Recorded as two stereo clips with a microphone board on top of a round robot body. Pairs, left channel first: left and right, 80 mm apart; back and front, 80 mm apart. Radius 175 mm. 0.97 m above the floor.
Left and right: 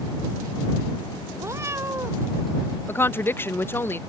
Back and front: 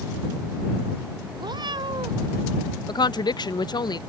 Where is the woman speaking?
155° left.